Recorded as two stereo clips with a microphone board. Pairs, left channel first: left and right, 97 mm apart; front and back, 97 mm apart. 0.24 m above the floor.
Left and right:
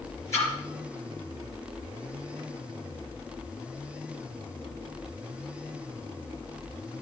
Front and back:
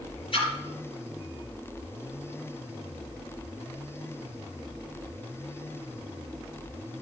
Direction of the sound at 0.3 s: 30° left.